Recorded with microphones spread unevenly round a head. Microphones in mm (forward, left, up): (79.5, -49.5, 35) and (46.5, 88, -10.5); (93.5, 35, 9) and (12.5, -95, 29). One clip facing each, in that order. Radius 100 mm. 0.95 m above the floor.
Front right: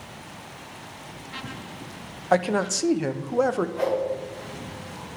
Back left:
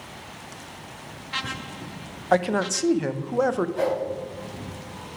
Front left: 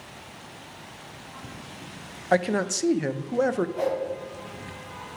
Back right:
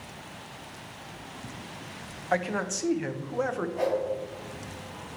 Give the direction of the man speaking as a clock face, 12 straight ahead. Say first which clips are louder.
Even, front left 6 dB; 11 o'clock.